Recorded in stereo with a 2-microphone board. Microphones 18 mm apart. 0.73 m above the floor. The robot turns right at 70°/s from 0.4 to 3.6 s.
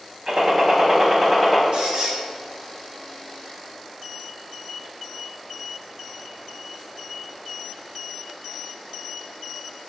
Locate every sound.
0.3 s a gunshot: 85° right, 0.6 m; by 1.6 s straight ahead, 0.6 m
1.7 s a squeak: 70° right, 1.2 m; by 2.2 s 35° right, 1.2 m